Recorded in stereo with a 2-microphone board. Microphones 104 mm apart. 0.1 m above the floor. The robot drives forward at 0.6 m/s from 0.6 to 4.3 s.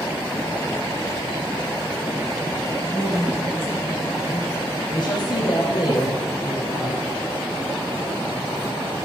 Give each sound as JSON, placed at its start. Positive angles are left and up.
{"t": 2.8, "sound": "a woman speaking", "side_deg": 20, "distance_m": 5.5}
{"t": 4.9, "sound": "a woman speaking", "side_deg": 45, "distance_m": 4.0}